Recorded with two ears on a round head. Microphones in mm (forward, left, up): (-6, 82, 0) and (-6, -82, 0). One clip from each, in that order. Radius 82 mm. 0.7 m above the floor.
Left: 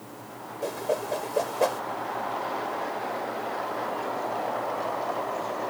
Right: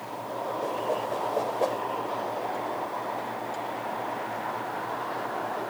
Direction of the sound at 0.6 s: 35° left (ahead or behind).